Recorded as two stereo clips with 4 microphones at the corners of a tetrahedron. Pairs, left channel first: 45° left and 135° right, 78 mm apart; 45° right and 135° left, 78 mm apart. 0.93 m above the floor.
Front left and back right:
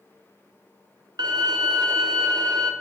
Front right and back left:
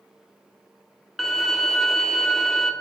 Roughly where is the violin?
Behind right.